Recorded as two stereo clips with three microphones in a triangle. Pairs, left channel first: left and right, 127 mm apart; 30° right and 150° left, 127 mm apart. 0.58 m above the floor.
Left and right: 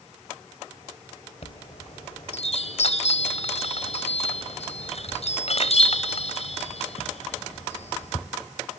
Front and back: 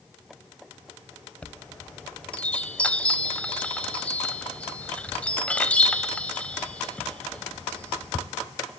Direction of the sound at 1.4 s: 50° left.